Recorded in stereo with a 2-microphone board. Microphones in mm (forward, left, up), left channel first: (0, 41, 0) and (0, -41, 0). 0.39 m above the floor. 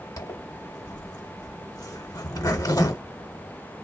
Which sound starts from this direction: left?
A zipper, at 0.2 s.